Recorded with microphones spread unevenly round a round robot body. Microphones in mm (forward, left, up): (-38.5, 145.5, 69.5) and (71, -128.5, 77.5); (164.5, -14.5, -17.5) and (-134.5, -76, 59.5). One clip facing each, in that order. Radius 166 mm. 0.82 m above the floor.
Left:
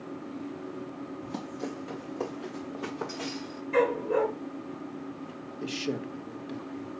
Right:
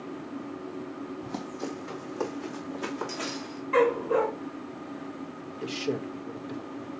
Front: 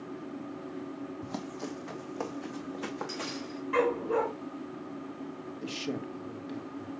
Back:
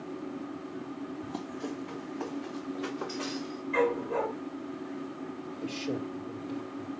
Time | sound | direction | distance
1.2 | running footsteps | 20° left | 1.9 m
3.7 | a dog barking | 10° left | 3.5 m
5.6 | a man speaking | 45° left | 1.2 m